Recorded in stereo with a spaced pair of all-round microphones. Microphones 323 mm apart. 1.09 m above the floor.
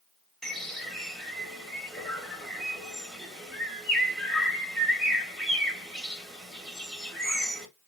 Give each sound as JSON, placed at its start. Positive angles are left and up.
{"t": 0.4, "sound": "a bird", "side_deg": 0, "distance_m": 1.2}